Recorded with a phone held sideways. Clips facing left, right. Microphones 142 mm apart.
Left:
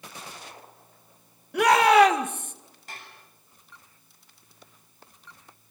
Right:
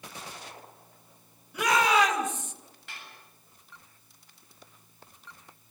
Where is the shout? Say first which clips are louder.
Left 7 dB; 65° left (ahead or behind), 2.5 m; by 2.5 s 55° left (ahead or behind), 1.9 m.